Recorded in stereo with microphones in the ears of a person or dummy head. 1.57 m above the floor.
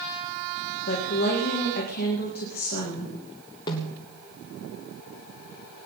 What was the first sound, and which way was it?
A woman speaking, 45° left (ahead or behind).